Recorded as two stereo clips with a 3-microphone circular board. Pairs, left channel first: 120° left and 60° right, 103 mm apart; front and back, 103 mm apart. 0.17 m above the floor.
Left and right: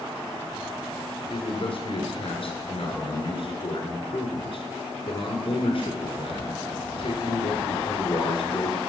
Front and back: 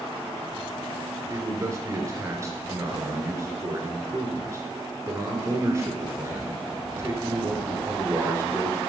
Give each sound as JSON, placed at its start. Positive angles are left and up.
{"t": 1.3, "sound": "a man speaking", "azimuth_deg": 125, "distance_m": 2.5}